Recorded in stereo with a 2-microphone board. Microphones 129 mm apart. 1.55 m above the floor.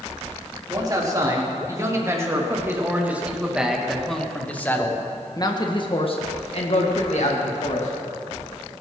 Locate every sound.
0.7 s a man speaking: 30° right (ahead or behind), 3.5 m; by 7.9 s 80° left, 2.5 m